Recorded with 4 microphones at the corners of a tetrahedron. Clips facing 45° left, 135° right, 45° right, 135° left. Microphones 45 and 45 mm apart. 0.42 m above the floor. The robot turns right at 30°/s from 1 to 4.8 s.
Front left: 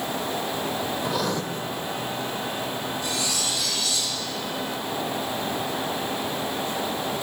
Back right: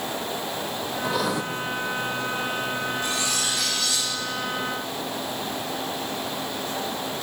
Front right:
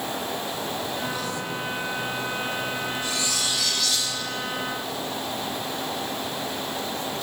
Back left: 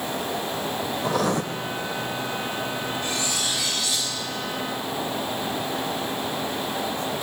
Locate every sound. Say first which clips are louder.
1.0 s writing: back right 3 dB, back left 6 dB; 135° left, 0.6 m; by 1.4 s 145° left, 0.6 m
3.0 s cutlery clinking: back right 1 dB, back left 1 dB; 175° left, 3.5 m; by 4.1 s 150° right, 3.5 m